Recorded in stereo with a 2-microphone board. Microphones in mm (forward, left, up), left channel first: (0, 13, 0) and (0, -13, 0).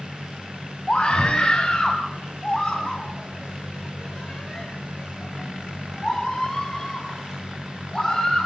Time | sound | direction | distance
0.9 | a scream | 30° left (ahead or behind) | 3 m